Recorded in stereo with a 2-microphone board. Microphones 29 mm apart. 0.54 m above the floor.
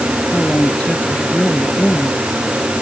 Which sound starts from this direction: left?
A woman speaking, at 0.3 s.